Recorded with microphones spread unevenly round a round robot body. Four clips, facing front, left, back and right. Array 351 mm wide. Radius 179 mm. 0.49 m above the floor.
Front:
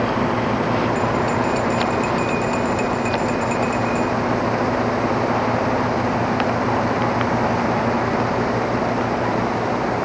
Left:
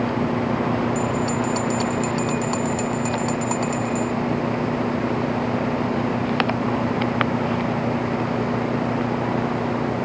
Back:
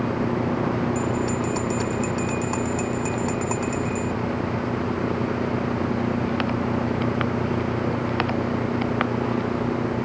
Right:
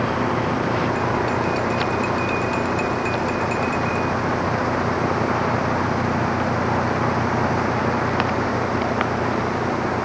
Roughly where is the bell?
Behind left.